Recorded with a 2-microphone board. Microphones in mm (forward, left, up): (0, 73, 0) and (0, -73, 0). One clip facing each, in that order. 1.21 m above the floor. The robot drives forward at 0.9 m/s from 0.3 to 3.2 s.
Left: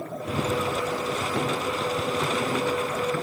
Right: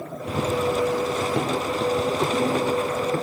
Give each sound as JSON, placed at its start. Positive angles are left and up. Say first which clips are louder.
{"t": 0.3, "sound": "running footsteps", "louder": "right 4 dB", "side_deg": 0, "distance_m": 1.2}